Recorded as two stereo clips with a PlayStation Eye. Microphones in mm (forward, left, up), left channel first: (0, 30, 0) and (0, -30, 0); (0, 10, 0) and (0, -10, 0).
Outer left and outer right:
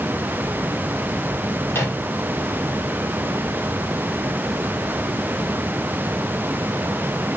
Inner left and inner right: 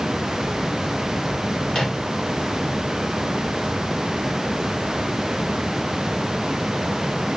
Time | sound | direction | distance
1.7 | a microwave | 45° left (ahead or behind) | 3.5 m